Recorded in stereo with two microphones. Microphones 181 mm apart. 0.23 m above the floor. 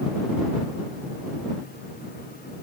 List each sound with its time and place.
Only background noise.